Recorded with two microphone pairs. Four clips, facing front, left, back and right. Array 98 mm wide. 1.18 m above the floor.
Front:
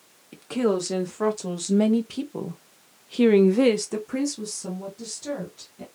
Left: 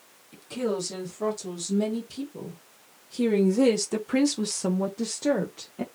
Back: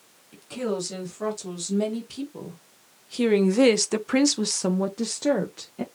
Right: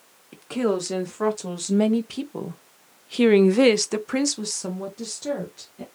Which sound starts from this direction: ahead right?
A woman speaking, at 0.3 s.